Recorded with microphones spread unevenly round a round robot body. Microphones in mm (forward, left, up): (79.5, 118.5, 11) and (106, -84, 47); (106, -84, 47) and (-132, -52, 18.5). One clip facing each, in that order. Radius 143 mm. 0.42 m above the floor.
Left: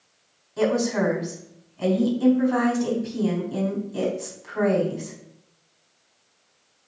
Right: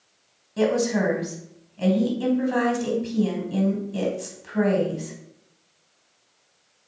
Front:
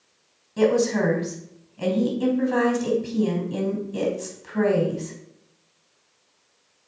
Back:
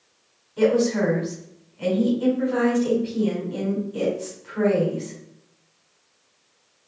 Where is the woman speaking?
30° right, 3.5 m.